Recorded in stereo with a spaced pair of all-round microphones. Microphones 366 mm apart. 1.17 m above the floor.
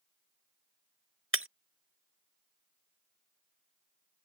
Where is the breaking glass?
35° right (ahead or behind).